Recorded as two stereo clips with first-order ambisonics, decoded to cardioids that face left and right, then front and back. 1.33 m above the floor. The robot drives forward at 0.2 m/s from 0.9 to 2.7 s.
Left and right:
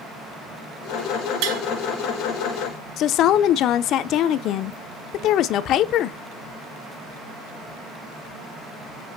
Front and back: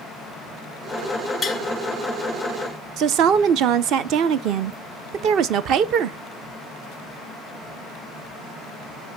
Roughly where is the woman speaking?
Behind left.